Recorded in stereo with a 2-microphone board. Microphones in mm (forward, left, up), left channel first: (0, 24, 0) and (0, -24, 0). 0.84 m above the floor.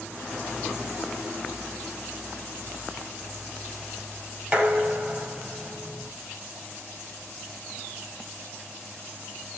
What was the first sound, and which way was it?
Dishes clattering, 30° right (ahead or behind).